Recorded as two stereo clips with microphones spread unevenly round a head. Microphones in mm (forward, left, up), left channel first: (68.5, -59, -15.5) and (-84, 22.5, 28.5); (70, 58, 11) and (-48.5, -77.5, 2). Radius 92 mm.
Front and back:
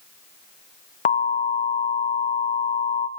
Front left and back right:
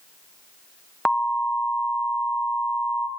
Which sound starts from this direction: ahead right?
An alarm, at 1.1 s.